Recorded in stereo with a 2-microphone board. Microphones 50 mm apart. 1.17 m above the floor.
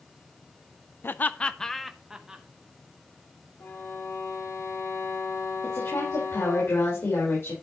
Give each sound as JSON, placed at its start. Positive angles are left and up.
{"t": 1.0, "sound": "laughter", "side_deg": 50, "distance_m": 0.6}
{"t": 3.6, "sound": "a violin", "side_deg": 70, "distance_m": 6.5}
{"t": 5.6, "sound": "a woman speaking", "side_deg": 75, "distance_m": 4.5}